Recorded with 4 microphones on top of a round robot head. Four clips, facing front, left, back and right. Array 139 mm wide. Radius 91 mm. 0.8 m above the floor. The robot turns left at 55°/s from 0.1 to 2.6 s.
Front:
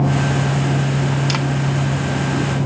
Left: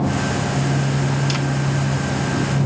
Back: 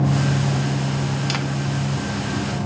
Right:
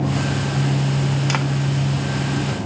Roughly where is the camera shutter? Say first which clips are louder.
Right 1 dB, front 4 dB; ahead right.